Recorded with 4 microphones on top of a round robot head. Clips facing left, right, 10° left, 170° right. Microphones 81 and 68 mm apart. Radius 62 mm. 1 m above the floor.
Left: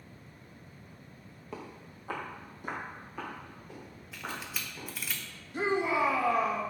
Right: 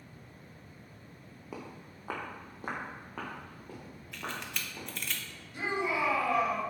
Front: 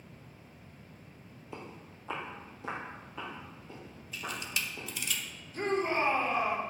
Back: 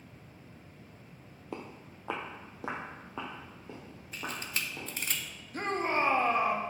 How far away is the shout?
About 2 m.